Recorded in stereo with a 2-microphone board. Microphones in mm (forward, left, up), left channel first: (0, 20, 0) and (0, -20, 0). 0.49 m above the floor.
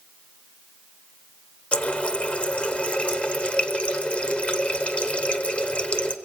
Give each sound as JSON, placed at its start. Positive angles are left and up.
{"t": 1.7, "sound": "a running tap", "side_deg": 30, "distance_m": 1.0}